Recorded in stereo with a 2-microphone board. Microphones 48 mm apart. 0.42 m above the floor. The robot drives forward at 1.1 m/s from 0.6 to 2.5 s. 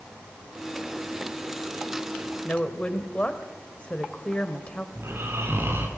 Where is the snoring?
60° right (ahead or behind), 3.5 m.